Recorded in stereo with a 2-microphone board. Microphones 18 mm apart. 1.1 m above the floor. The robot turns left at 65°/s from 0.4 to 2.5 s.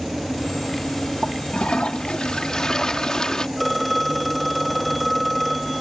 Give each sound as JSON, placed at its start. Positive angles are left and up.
{"t": 1.2, "sound": "a toilet flushing", "azimuth_deg": 120}
{"t": 3.6, "sound": "a phone ringing", "side_deg": 10}